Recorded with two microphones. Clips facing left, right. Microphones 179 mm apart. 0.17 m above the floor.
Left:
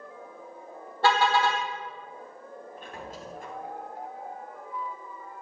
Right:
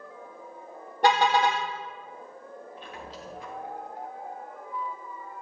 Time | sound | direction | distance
1.0 | a car horn | 20° right (ahead or behind) | 3.5 m
2.8 | a squeak | 50° left (ahead or behind) | 4 m